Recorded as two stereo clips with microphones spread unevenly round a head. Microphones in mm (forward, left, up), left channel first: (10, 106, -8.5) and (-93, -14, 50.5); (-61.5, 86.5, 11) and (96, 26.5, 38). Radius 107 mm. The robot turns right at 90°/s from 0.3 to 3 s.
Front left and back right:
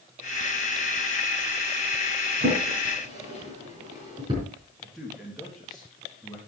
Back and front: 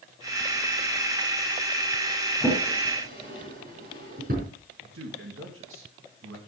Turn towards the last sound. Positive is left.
turn(degrees=-40)